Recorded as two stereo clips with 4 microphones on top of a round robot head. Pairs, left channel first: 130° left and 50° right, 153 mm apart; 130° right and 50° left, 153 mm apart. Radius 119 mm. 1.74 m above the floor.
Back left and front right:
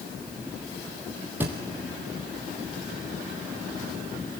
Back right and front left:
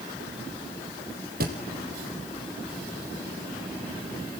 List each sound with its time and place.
1.4 s a thud: 25° left, 3.5 m